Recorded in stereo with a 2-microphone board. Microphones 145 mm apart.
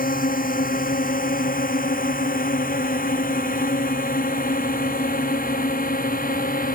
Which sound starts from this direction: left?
A drone, at 0.0 s.